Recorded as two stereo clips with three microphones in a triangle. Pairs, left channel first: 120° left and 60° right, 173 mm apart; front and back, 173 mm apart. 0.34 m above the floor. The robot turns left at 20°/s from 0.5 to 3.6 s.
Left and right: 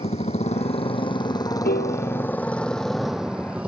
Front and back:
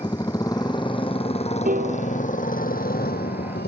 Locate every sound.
0.0 s a motorcycle: 65° left; by 3.7 s 25° left
1.6 s a piano: 145° left; by 2.2 s 130° left